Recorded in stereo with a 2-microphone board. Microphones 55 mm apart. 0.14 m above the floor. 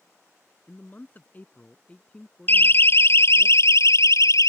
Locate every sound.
0.7 s a man speaking: 35° left (ahead or behind); by 3.5 s centre (ahead or behind)
2.5 s a siren: 40° left (ahead or behind); by 4.5 s 65° left (ahead or behind)